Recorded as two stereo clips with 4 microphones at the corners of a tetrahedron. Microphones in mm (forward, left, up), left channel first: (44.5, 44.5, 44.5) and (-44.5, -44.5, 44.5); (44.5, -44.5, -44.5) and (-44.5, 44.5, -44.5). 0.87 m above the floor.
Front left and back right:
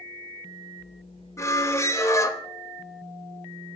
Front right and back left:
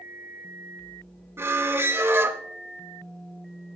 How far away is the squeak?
About 0.5 m.